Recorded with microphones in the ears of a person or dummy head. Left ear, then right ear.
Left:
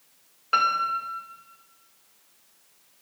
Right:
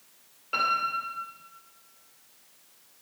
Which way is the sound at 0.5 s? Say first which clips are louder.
Left 4 dB; 55° left (ahead or behind).